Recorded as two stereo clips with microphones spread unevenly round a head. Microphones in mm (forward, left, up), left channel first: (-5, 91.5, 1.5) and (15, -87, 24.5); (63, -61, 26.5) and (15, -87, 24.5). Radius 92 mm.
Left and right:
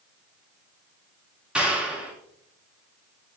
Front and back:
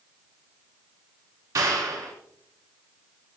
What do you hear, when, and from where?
1.6 s a clap: 170° right, 2.5 m